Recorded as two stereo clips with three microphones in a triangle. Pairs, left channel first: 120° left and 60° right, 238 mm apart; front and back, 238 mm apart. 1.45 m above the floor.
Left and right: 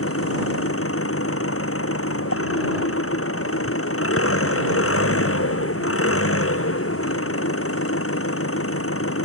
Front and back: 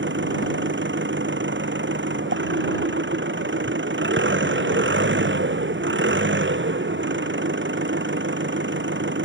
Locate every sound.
0.0 s an engine running: 140° left